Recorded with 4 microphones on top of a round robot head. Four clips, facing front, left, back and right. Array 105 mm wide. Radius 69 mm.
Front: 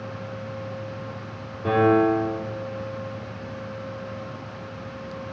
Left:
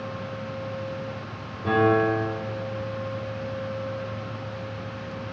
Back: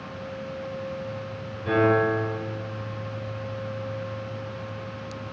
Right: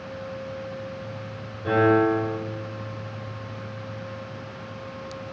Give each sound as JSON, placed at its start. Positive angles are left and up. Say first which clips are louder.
{"t": 1.6, "sound": "a piano", "louder": "right 1 dB, front 3 dB", "azimuth_deg": 10, "distance_m": 7.5}